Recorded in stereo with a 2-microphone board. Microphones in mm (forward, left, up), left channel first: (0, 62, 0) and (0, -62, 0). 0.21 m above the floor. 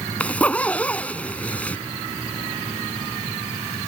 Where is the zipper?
10° left (ahead or behind).